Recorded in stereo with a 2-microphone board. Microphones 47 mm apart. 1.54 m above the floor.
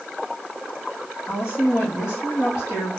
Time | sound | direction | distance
1.2 | a woman speaking | 80° left | 2 m